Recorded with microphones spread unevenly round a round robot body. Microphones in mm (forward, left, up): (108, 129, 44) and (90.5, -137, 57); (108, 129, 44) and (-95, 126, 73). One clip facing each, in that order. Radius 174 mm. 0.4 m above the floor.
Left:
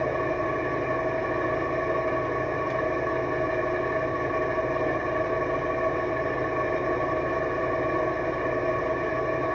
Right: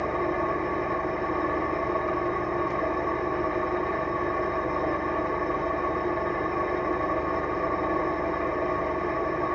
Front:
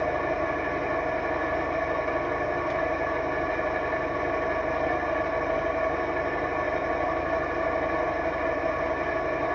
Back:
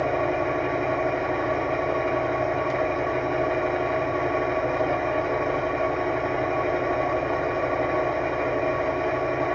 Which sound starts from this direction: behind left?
An engine running, at 0.0 s.